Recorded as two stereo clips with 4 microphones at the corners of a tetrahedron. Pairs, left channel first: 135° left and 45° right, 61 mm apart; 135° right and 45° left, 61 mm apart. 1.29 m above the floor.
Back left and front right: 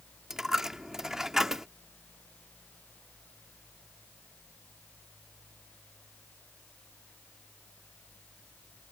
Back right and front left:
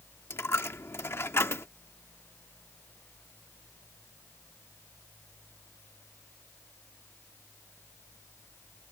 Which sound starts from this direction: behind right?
A dropped coin, at 0.3 s.